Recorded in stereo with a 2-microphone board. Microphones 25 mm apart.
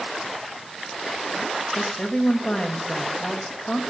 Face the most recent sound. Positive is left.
turn(degrees=45)  # may be behind; listen again after turning